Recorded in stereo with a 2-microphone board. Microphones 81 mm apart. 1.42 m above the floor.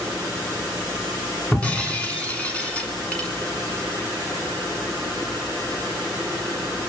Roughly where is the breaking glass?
Centre.